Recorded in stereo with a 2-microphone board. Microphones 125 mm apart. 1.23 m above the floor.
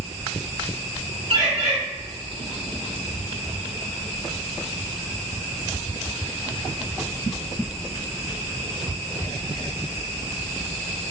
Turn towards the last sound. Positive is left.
turn(degrees=-50)  # may be behind; listen again after turning